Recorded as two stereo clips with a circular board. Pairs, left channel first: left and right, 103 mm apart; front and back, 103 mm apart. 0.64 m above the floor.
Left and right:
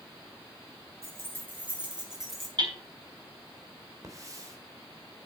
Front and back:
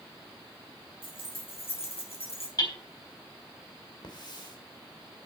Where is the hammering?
50° right, 5 m.